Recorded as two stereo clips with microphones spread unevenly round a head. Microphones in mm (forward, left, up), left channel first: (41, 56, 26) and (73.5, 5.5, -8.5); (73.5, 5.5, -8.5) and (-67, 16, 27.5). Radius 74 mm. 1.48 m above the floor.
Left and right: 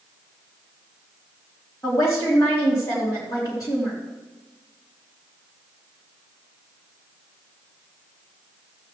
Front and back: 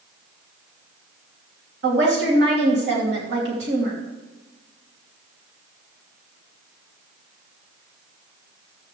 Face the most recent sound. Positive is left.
turn(degrees=-170)